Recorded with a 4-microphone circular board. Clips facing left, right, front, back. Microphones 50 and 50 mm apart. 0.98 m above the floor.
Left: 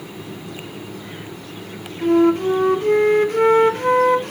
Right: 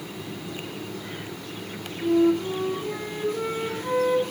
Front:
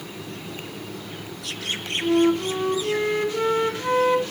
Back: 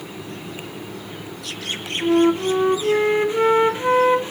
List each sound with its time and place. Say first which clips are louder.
2.0 s a flute: left 6 dB, back 3 dB; 115° left, 1.6 m